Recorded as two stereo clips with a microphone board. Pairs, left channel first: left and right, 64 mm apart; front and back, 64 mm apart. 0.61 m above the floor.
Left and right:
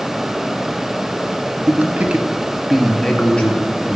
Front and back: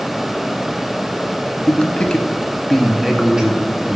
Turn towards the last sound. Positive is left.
turn(degrees=125)